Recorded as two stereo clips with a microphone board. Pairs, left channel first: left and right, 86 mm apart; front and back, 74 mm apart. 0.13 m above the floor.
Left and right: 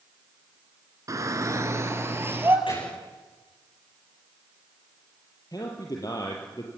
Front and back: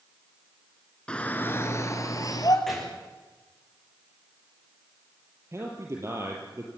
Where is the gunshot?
85° left, 10 m.